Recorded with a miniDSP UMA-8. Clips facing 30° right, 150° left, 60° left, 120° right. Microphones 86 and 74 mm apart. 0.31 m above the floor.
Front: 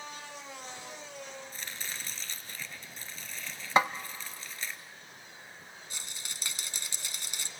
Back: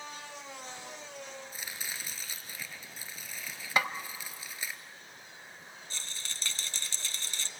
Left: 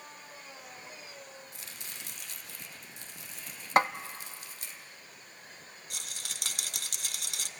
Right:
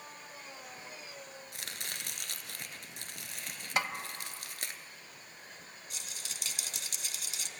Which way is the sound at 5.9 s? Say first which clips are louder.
Back 2 dB, left 3 dB; 45° left.